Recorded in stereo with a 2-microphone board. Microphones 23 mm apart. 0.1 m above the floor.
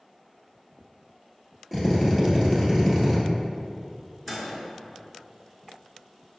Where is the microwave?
10° left (ahead or behind), 1.4 m.